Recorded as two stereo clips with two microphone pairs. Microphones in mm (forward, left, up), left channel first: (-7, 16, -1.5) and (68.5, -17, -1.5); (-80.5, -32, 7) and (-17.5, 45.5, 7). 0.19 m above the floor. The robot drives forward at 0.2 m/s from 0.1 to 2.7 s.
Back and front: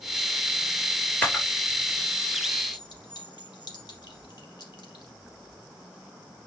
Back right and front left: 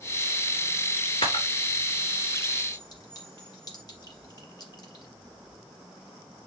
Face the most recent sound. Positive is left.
turn(degrees=-175)